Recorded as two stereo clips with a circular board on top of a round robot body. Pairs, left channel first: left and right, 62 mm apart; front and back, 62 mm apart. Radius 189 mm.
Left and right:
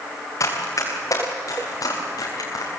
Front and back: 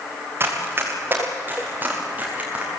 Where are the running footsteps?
125° left, 5.5 m; by 2.7 s 110° left, 6 m.